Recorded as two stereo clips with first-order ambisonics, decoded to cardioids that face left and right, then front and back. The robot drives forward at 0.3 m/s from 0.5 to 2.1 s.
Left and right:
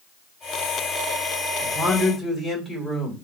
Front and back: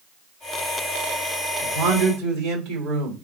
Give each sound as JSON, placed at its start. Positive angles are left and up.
{"t": 1.6, "sound": "a man speaking", "azimuth_deg": -175, "distance_m": 2.0}